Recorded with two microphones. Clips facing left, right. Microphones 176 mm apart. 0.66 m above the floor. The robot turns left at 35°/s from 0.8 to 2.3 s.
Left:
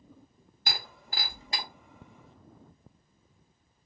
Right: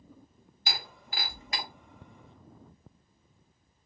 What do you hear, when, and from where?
0.7 s breaking glass: 55° left (ahead or behind), 1.4 m; by 1.6 s 25° left (ahead or behind), 1.4 m